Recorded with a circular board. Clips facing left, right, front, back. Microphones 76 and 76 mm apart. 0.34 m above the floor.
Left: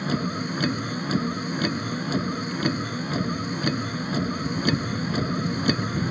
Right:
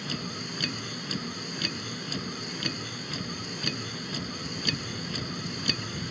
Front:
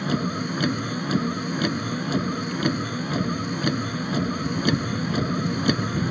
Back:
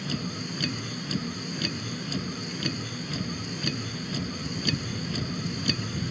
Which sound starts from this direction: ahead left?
A vehicle, at 0.0 s.